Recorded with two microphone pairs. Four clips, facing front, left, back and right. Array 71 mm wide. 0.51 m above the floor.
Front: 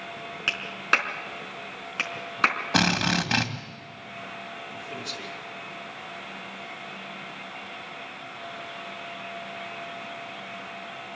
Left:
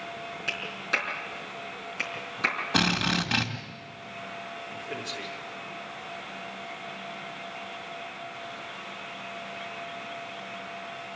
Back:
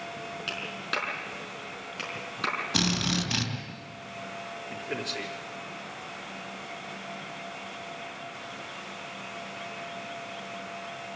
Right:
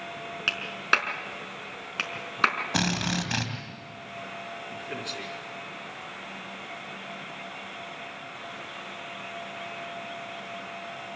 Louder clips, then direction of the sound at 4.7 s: Even, back 6 dB; 170° right.